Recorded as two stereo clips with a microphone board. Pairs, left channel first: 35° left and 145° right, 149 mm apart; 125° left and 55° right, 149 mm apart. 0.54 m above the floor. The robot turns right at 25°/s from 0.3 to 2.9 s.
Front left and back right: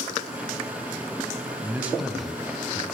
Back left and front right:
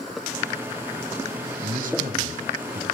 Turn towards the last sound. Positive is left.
turn(degrees=-40)